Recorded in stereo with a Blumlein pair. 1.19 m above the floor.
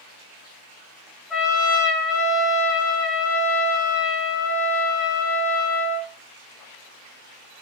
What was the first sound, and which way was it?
A trumpet, 5° left.